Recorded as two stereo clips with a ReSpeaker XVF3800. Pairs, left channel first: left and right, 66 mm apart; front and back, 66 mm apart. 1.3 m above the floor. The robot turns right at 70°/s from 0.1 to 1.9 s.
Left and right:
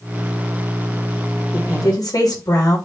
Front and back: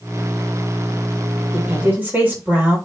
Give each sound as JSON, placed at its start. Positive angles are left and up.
{"t": 1.5, "sound": "a woman speaking", "azimuth_deg": 90, "distance_m": 3.0}